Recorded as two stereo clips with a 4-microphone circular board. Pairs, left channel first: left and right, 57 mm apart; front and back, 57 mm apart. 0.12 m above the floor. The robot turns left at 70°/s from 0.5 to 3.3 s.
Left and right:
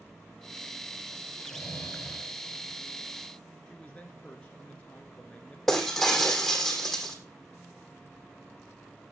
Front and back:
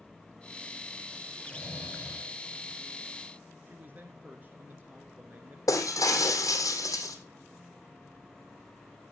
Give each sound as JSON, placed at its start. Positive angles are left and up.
{"t": 1.4, "sound": "snoring", "azimuth_deg": 80, "distance_m": 7.0}
{"t": 3.7, "sound": "a man speaking", "azimuth_deg": 145, "distance_m": 1.6}
{"t": 5.7, "sound": "breaking glass", "azimuth_deg": 5, "distance_m": 2.0}